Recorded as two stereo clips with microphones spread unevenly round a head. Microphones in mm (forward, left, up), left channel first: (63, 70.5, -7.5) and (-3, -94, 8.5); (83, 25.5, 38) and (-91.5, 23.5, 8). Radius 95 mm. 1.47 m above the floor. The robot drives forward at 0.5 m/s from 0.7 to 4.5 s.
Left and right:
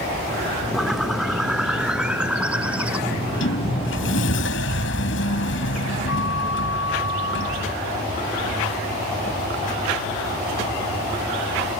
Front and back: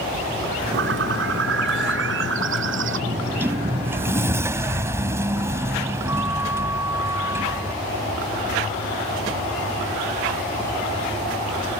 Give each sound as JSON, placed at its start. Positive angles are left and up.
{"t": 0.7, "sound": "a bird", "azimuth_deg": 160}
{"t": 3.1, "sound": "a sliding door", "azimuth_deg": 100}